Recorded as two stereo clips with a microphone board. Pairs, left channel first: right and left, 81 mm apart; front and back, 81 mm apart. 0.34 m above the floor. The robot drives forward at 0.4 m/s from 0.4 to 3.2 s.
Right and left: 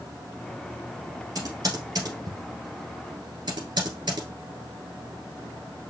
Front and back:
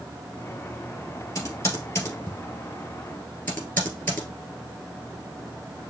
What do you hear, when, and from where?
1.4 s typing on a keyboard: 50° left, 2.5 m; by 4.3 s 65° left, 2 m